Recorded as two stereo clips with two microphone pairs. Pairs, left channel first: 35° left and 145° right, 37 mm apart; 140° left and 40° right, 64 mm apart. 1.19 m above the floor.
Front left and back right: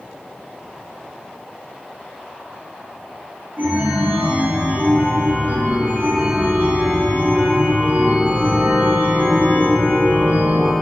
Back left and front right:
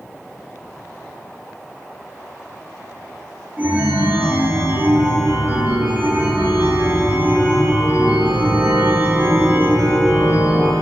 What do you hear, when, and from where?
3.6 s a chime: 105° right, 0.8 m